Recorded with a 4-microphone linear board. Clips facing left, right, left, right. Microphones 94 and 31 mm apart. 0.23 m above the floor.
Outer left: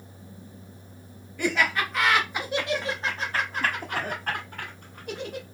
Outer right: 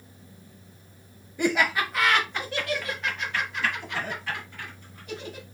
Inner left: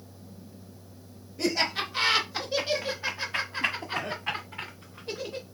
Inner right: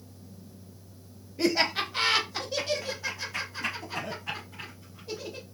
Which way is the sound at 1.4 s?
20° right (ahead or behind).